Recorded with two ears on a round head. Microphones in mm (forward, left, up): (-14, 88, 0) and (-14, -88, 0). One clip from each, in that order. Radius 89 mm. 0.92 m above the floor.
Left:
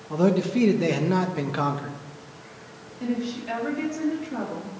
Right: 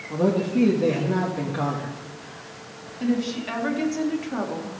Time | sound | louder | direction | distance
0.1 | a man speaking | even | 60° left (ahead or behind) | 0.9 m
3.0 | a woman speaking | right 4 dB | 30° right (ahead or behind) | 2 m